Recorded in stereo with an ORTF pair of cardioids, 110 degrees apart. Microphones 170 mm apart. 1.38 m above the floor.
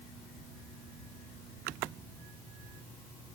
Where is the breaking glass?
I don't hear breaking glass.